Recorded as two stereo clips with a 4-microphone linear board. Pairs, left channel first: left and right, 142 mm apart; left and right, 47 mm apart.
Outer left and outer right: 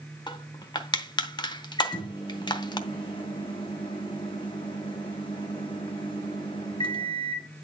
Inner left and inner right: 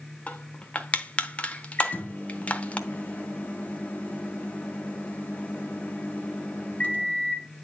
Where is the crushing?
30° left (ahead or behind), 0.8 m.